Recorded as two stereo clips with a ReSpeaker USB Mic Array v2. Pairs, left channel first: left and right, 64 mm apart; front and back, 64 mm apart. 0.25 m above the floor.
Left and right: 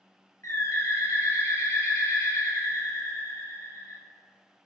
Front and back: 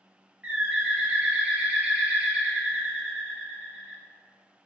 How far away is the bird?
About 0.5 m.